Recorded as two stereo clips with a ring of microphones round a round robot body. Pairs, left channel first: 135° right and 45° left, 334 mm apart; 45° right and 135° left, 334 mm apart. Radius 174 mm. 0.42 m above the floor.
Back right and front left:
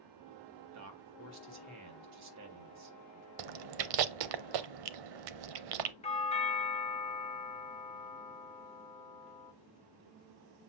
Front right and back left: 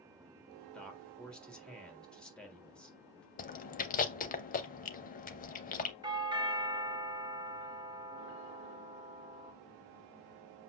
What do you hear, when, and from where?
0.7 s a man speaking: 40° left, 1.8 m
3.4 s chewing: 25° left, 0.6 m
6.0 s a doorbell: 170° right, 1.3 m